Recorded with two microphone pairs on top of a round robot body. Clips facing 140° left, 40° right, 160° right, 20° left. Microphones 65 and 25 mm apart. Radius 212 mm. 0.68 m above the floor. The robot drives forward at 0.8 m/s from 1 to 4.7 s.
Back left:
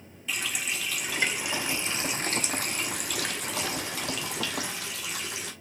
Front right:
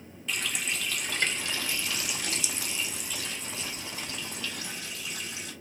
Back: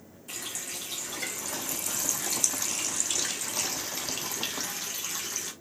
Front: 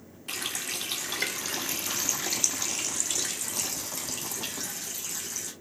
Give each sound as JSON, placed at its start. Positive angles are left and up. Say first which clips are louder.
{"t": 0.3, "sound": "a running tap", "louder": "even, front 5 dB", "azimuth_deg": 55, "distance_m": 1.8}